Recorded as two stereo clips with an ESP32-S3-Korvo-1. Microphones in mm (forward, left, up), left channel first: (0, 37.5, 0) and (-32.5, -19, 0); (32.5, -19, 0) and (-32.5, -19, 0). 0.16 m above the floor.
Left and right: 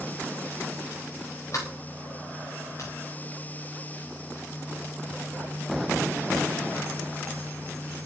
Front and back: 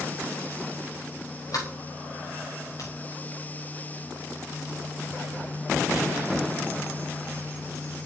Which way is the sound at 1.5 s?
20° left.